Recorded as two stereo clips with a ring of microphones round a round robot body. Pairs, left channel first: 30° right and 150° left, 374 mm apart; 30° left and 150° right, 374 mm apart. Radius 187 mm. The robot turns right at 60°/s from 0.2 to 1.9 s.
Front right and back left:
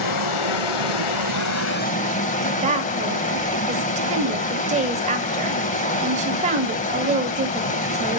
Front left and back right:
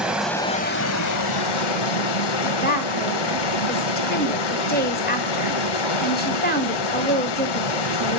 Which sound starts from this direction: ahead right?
Running water, at 0.0 s.